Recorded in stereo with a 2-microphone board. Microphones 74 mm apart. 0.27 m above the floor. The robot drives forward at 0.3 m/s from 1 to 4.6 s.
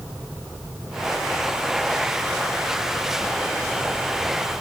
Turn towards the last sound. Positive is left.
No sound to turn to.